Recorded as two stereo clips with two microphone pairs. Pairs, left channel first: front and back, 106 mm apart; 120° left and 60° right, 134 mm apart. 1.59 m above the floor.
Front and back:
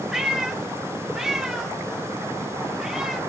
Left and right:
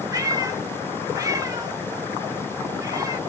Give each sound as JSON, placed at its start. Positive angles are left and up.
{"t": 0.1, "sound": "a cat meowing", "azimuth_deg": -95, "distance_m": 0.8}